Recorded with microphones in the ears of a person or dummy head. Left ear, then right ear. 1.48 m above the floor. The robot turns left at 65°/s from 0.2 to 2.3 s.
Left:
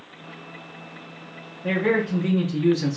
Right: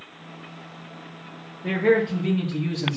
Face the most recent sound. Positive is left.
turn(degrees=140)